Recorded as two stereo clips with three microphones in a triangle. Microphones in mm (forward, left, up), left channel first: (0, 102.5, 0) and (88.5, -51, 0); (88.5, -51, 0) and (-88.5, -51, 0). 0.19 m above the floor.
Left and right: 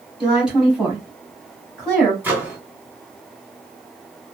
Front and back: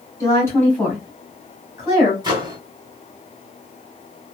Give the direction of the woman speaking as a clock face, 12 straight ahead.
11 o'clock.